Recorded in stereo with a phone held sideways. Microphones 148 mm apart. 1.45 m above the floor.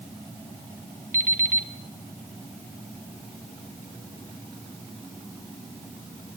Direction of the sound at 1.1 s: 65° right (ahead or behind).